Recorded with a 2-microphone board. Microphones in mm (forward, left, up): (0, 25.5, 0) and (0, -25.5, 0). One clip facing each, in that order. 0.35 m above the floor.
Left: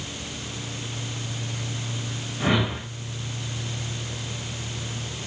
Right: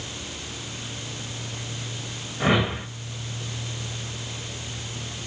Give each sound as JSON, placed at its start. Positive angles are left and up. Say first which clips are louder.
{"t": 2.4, "sound": "a whoosh", "louder": "right 2 dB", "side_deg": -20, "distance_m": 1.4}